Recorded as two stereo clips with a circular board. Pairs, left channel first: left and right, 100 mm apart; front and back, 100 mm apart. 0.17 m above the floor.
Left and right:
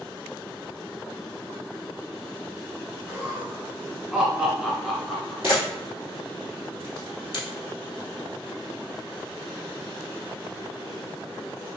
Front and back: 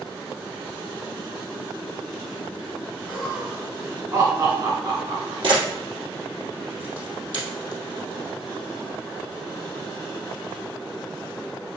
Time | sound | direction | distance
3.1 | laughter | 75° right | 1.1 m
5.4 | a camera shutter | 155° right | 2.5 m